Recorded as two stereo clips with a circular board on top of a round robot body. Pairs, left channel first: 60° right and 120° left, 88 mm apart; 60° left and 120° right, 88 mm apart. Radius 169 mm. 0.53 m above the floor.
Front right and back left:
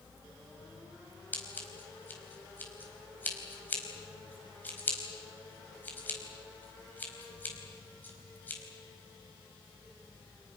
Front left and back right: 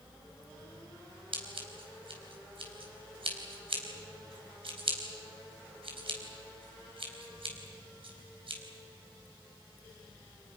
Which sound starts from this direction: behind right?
Scissors, at 1.3 s.